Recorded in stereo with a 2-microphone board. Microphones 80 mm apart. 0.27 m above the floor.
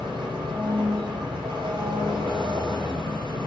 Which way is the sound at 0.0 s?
85° right.